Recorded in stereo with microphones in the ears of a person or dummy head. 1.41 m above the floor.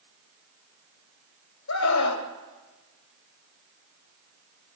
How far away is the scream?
About 1.9 m.